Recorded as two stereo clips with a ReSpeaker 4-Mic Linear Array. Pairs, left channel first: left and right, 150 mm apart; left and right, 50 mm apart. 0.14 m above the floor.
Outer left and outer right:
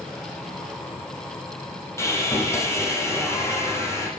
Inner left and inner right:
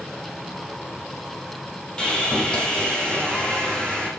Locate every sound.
2.0 s sawing: 20° left (ahead or behind), 7.5 m